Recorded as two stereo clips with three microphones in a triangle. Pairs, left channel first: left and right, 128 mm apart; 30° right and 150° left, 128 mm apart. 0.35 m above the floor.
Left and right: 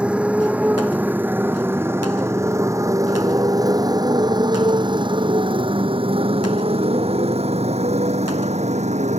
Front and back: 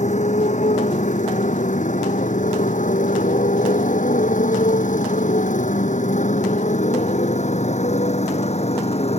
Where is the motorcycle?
10° right; by 9.2 s 65° right.